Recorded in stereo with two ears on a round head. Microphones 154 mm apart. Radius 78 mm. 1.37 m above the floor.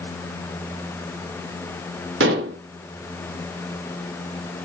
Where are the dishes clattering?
70° right (ahead or behind), 1.1 m.